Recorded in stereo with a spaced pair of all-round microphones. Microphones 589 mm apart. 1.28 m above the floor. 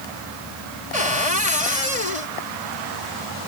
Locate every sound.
0.9 s a cupboard door: 80° left